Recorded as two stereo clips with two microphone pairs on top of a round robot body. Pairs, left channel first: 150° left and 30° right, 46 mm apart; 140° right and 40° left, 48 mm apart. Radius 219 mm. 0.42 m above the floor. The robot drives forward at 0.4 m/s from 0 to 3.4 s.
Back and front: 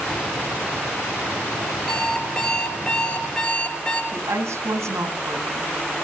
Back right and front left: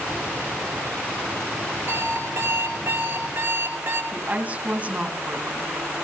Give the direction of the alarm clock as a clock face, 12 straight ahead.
9 o'clock.